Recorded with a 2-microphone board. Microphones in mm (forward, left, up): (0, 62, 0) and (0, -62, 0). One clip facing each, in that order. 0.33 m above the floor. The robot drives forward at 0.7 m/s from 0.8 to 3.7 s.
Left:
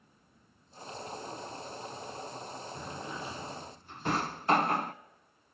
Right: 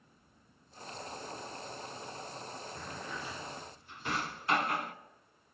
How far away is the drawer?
About 1.1 m.